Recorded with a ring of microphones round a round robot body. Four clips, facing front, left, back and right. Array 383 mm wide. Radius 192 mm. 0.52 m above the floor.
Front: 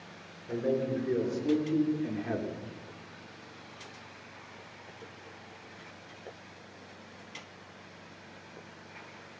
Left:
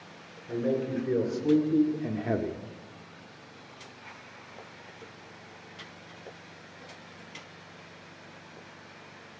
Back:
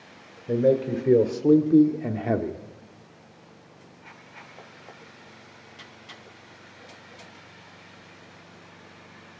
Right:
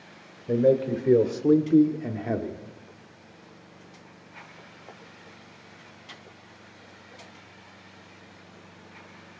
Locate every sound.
0.5 s a man speaking: 130° right, 2.5 m; by 2.6 s 155° left, 1.5 m